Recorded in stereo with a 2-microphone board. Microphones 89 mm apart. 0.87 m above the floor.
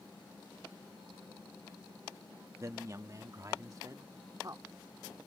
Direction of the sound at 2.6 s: 35° right (ahead or behind).